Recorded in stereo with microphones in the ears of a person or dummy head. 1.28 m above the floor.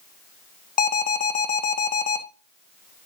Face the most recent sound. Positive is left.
turn(degrees=45)  # may be behind; listen again after turning